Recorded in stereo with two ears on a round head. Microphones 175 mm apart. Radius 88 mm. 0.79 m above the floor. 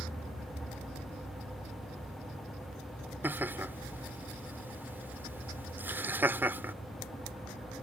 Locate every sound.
3.2 s laughter: 10° right (ahead or behind)